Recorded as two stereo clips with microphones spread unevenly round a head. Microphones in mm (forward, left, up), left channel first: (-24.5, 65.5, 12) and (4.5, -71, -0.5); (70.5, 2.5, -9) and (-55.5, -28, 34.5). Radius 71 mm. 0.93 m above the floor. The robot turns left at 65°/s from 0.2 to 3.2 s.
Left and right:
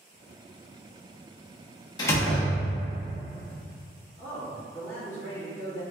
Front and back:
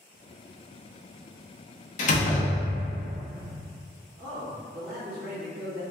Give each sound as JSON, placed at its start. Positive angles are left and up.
{"t": 2.0, "sound": "a door slam", "azimuth_deg": 35, "distance_m": 0.9}
{"t": 4.2, "sound": "a man speaking", "azimuth_deg": 175, "distance_m": 1.9}